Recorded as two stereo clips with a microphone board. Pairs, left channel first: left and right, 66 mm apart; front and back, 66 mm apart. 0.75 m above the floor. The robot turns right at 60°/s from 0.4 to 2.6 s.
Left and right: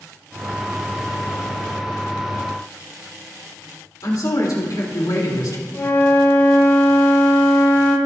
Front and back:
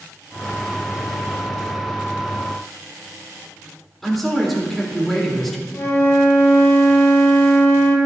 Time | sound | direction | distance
4.0 | a man speaking | 85° left | 2.5 m
5.7 | a flute | 45° left | 2 m